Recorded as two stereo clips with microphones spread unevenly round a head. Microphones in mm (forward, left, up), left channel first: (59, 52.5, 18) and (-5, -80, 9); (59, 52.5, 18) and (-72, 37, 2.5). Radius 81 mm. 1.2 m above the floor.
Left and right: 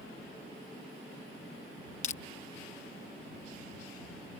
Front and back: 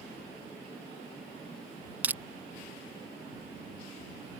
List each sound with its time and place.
2.0 s crushing: 110° left